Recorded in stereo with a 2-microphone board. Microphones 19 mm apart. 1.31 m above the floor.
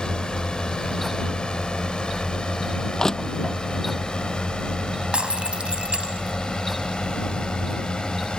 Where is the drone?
60° left (ahead or behind).